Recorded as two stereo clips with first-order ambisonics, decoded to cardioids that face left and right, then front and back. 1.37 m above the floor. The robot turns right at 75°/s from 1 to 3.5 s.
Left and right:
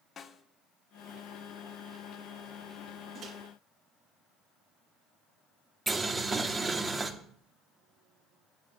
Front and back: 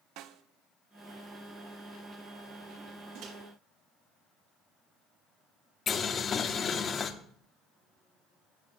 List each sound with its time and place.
0.2 s a snare drum: 155° left, 0.8 m
3.1 s a microwave: 155° right, 2.0 m; by 3.3 s 140° right, 2.0 m
5.9 s boiling: 25° right, 0.9 m